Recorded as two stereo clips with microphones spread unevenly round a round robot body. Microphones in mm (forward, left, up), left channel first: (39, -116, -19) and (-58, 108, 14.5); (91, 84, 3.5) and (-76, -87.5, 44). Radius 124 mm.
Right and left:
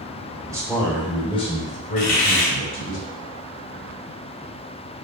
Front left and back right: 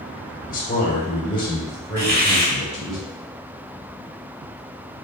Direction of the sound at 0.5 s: 35° left.